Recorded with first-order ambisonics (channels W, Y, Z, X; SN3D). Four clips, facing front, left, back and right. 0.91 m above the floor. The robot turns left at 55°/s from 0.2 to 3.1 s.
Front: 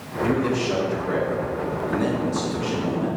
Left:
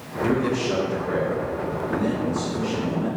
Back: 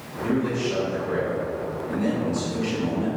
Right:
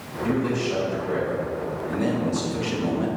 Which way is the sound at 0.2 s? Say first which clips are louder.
Left 1 dB, front 2 dB; 75° left.